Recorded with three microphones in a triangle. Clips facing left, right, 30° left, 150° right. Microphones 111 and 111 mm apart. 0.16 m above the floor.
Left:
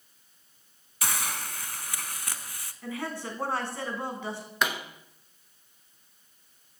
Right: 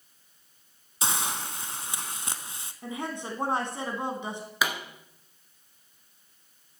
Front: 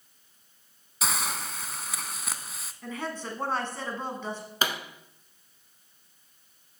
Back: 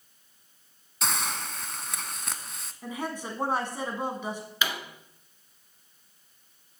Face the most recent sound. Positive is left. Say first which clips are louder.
# even, front 2 dB
turn(degrees=-5)